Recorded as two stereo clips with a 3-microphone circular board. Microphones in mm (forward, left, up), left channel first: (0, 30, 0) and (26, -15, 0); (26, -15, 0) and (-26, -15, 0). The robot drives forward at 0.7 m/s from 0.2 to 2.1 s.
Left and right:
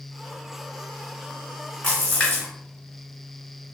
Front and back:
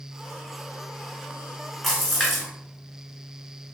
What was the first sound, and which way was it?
A splash, 95° left.